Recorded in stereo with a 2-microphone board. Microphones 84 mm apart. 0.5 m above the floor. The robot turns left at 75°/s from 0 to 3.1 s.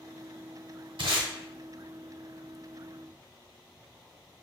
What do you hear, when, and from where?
1.0 s tape being pulled: 80° right, 0.8 m; by 1.3 s 75° right (ahead or behind), 0.8 m